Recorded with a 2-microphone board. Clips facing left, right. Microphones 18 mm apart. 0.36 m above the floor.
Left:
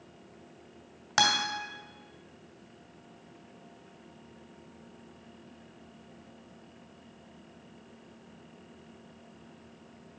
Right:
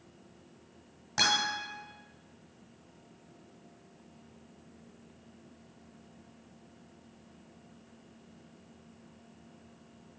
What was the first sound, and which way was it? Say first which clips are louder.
A guitar: left 2 dB; 60° left (ahead or behind).